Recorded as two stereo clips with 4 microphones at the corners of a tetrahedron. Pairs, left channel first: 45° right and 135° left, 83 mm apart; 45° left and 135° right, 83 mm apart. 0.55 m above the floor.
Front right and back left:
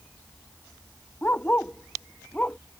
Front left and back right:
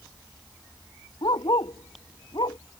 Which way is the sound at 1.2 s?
25° left.